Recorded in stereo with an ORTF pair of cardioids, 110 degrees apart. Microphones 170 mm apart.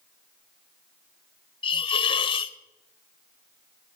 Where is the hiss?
30° left, 0.9 m.